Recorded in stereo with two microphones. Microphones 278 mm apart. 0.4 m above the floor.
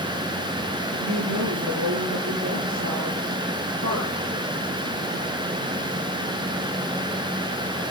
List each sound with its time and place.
0.9 s a woman speaking: 80° right, 9 m